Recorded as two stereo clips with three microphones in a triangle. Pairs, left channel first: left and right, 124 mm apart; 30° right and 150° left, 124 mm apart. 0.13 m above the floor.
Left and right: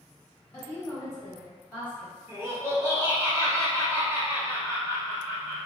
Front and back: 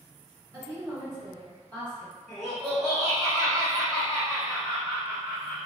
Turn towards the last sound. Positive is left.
turn(degrees=-115)